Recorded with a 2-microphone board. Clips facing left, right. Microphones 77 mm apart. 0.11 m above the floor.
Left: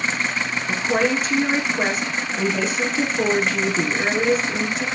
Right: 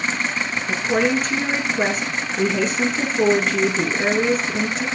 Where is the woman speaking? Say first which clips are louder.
Right 1 dB; 5° left (ahead or behind), 1.2 m.